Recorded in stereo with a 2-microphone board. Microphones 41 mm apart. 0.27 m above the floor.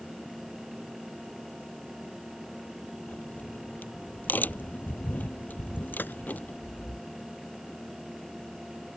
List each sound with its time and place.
3.1 s a crack: 55° left (ahead or behind)
6.0 s a gunshot: 55° left (ahead or behind)